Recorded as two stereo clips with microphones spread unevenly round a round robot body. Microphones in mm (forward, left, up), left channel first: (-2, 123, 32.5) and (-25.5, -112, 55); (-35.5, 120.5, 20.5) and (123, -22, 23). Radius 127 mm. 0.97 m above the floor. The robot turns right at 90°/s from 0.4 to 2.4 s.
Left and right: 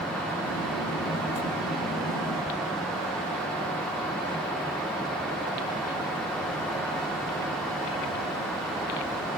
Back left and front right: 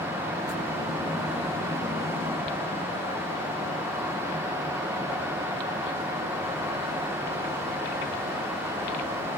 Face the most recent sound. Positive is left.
No sound to turn to.